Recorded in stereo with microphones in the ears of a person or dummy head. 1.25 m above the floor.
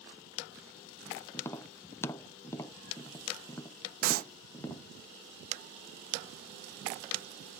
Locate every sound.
1.3 s tapping: 15° left (ahead or behind)
4.0 s a clap: 55° right (ahead or behind)